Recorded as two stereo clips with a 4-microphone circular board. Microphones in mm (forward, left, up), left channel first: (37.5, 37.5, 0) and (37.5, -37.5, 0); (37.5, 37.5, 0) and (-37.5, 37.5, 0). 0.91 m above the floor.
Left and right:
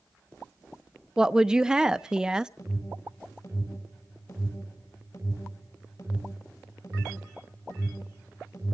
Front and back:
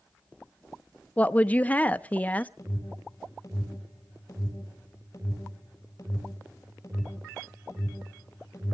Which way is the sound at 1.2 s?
25° right.